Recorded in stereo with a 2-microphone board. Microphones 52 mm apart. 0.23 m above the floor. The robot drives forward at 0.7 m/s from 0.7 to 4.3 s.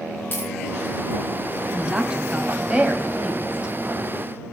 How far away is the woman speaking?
About 1.4 m.